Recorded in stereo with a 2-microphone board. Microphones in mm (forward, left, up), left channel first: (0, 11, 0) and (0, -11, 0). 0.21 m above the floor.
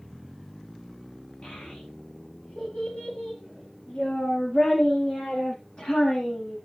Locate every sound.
1.4 s a child speaking: 55° left (ahead or behind), 5 m